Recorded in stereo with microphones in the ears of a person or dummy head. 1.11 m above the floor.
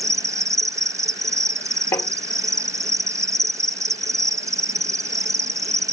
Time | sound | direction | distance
0.0 | an insect | 15° right (ahead or behind) | ?
1.9 | tapping | 15° left (ahead or behind) | ?